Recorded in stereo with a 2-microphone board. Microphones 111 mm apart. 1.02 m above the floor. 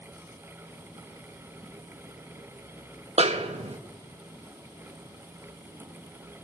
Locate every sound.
3.2 s a snare drum: 70° right (ahead or behind), 1.3 m